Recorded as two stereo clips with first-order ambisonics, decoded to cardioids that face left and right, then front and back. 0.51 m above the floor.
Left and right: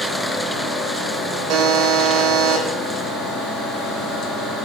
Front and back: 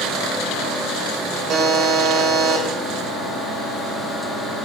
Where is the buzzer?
125° right, 0.8 m.